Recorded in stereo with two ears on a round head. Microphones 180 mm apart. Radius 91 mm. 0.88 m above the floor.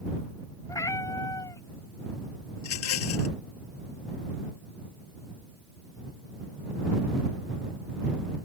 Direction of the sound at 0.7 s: 15° left (ahead or behind).